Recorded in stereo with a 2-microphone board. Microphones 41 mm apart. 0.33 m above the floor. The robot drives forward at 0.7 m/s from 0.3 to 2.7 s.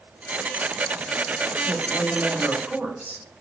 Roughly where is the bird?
I don't hear a bird.